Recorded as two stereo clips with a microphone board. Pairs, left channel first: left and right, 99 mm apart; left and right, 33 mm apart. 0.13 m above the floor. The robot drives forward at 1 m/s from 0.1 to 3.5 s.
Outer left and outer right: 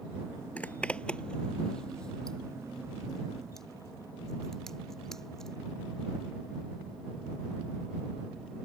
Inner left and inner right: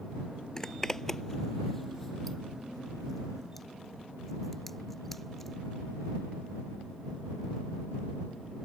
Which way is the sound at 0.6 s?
15° left (ahead or behind).